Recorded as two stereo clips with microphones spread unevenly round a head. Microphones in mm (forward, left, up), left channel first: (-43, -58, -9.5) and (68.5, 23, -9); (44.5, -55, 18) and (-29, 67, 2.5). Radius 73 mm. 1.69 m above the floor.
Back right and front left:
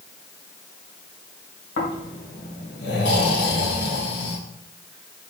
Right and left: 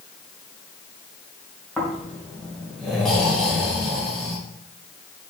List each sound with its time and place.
1.8 s snoring: 145° right, 1.9 m